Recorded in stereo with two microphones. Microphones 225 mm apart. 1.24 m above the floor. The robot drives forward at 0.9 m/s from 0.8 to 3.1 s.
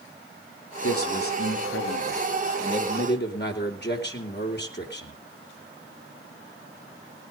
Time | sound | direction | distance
0.8 | a man speaking | 85° left | 2.5 m